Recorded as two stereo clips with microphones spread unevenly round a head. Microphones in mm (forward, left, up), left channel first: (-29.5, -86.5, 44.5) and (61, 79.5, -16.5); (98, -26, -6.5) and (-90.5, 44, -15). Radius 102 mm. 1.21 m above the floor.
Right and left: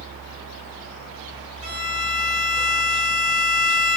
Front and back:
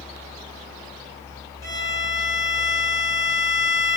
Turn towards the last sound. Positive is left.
turn(degrees=55)